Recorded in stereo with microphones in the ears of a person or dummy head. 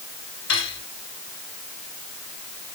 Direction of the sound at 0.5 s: 80° left.